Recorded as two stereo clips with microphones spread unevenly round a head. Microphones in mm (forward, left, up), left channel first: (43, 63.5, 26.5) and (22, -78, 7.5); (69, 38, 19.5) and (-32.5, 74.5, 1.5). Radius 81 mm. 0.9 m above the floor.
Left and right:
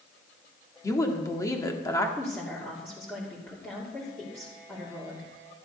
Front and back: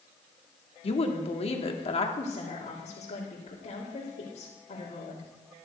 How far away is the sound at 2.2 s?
About 2.5 m.